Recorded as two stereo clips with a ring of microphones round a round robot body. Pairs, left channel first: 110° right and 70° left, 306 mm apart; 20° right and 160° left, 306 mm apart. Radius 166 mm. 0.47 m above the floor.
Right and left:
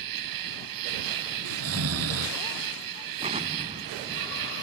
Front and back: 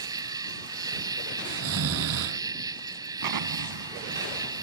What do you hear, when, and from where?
0.0 s an insect: 80° left
1.4 s snoring: 110° left
3.2 s an explosion: 140° left